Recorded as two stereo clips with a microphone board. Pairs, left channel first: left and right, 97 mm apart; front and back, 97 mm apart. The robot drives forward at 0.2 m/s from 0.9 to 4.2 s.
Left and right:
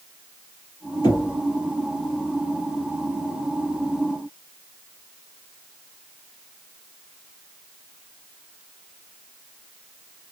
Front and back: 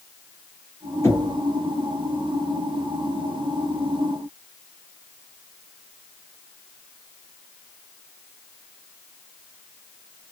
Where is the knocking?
55° left, 2 m.